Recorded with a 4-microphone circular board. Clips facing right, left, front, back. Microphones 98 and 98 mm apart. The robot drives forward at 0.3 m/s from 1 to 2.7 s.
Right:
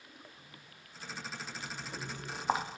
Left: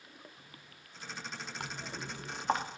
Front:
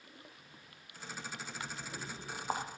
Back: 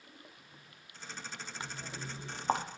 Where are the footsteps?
110° left, 0.9 m; by 2.6 s 165° right, 1.6 m.